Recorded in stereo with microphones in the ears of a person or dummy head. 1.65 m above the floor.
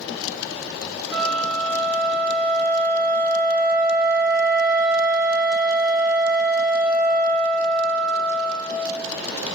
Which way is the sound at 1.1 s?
Centre (ahead or behind).